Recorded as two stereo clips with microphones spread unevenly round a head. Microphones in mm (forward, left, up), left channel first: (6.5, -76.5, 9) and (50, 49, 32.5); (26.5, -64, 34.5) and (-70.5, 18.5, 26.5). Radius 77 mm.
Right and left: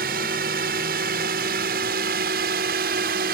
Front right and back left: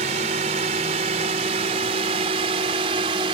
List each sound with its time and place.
0.0 s a drone: 95° left; by 3.3 s 85° left